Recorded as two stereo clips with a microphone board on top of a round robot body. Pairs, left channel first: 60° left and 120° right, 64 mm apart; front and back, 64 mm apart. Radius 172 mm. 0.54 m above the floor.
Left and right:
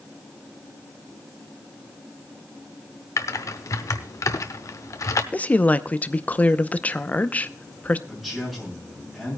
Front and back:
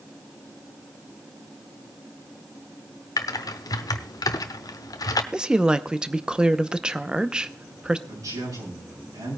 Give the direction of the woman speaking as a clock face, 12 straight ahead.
8 o'clock.